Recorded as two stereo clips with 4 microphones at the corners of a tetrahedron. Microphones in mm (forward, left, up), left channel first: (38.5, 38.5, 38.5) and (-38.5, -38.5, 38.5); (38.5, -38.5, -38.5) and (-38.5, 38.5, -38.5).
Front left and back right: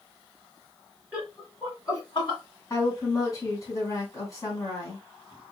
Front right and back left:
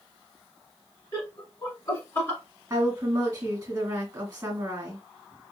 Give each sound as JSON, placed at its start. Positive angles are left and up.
{"t": 1.1, "sound": "laughter", "azimuth_deg": -70, "distance_m": 1.3}
{"t": 2.7, "sound": "a woman speaking", "azimuth_deg": 80, "distance_m": 1.8}